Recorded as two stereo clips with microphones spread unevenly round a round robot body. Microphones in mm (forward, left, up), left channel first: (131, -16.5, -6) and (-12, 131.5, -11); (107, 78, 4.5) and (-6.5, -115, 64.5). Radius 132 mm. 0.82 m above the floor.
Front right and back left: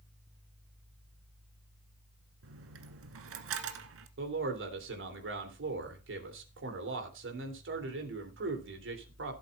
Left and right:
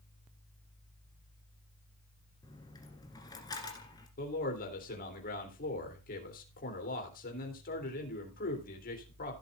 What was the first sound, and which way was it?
A dropped coin, 145° left.